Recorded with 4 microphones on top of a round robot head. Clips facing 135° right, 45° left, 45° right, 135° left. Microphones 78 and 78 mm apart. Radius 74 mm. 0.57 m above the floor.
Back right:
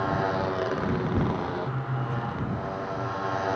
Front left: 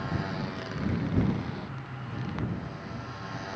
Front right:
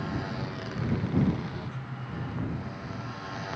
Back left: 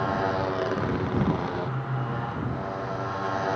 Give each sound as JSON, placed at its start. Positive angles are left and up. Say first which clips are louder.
{"t": 0.0, "sound": "a motorcycle", "louder": "back right 8 dB, back left 9 dB", "azimuth_deg": 180}